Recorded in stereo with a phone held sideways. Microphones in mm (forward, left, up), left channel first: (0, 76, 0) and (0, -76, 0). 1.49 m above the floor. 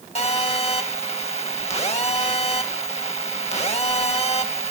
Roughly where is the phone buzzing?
Left.